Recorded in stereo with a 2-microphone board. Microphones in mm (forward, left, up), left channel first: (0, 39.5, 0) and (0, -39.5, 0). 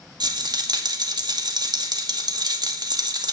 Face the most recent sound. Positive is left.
turn(degrees=-65)  # may be behind; listen again after turning